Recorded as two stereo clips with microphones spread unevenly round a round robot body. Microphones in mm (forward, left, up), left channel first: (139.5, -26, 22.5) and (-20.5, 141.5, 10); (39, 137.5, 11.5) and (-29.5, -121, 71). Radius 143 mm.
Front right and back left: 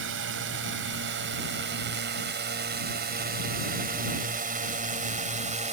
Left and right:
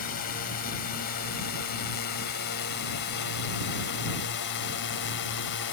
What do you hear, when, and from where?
0.0 s a drone: 120° left; by 5.7 s 80° left